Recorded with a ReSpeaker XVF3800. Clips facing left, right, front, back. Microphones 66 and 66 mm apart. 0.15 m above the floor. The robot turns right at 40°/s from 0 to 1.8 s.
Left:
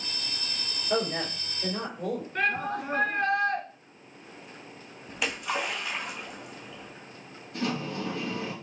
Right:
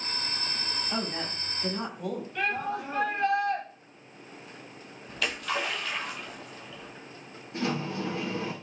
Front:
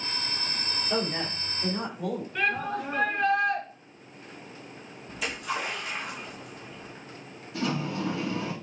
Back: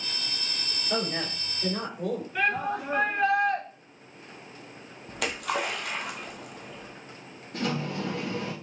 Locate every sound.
0.9 s a woman speaking: 105° left, 3.5 m; by 2.2 s 140° left, 3.5 m
2.4 s a shout: 105° left, 2.0 m
5.1 s a splash: 160° left, 1.2 m
7.5 s a sliding door: 150° right, 1.9 m